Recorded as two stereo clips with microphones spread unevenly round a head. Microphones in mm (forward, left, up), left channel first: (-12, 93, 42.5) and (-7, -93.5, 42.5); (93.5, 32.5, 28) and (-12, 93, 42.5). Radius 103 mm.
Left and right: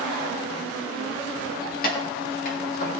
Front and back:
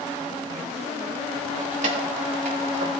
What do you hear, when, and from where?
1.6 s keys jangling: 135° left, 1.7 m